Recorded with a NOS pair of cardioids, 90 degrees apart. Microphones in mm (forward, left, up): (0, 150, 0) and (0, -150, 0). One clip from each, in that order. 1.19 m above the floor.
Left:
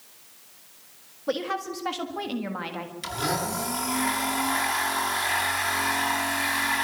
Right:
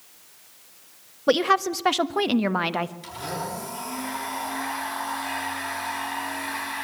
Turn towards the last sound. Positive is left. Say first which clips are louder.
# left 4 dB
turn(degrees=60)